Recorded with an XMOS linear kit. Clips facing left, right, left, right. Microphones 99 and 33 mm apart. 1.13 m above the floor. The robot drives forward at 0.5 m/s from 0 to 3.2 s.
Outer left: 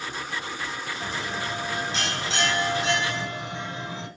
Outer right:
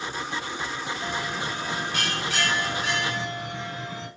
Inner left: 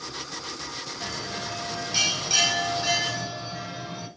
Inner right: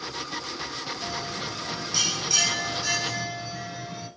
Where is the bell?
30° left (ahead or behind), 4.5 m; by 4.1 s 25° left (ahead or behind), 5.5 m.